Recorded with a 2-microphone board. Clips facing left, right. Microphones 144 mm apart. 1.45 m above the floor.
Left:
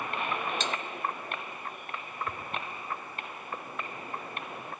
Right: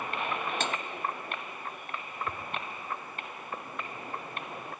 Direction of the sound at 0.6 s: 55° right (ahead or behind).